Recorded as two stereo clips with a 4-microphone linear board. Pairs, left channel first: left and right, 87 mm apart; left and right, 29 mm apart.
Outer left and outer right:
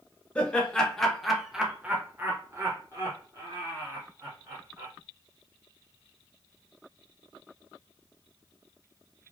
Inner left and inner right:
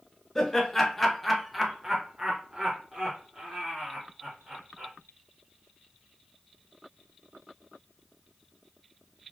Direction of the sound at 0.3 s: 15° left (ahead or behind).